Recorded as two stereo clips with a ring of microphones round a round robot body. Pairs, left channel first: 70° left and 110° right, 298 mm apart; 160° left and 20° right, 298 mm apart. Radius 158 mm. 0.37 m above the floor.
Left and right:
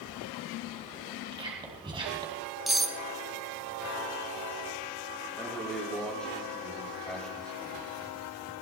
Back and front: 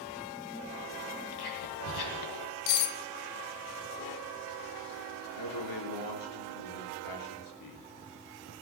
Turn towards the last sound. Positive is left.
turn(degrees=155)